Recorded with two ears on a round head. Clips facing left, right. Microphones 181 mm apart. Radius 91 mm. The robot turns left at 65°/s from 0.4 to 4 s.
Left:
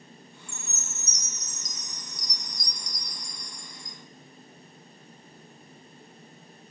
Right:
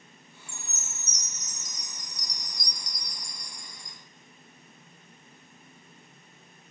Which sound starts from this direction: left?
A chime, at 0.5 s.